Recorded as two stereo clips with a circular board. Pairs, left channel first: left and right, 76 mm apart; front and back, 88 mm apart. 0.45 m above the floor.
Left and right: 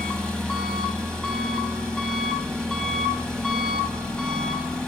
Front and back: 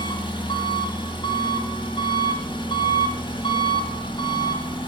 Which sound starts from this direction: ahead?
An engine running, at 0.0 s.